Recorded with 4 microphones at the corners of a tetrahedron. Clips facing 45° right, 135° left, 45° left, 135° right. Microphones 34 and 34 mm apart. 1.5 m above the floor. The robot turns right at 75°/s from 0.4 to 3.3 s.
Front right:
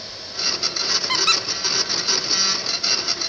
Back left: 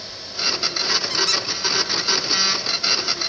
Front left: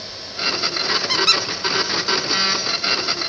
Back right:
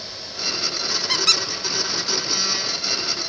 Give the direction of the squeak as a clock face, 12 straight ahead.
1 o'clock.